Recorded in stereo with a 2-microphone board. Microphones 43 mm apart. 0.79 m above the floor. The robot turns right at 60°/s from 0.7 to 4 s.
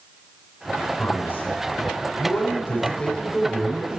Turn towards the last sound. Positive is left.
turn(degrees=-150)